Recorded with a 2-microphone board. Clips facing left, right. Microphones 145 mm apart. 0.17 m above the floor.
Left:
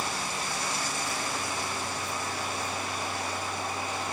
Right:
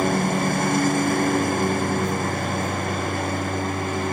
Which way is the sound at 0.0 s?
60° right (ahead or behind).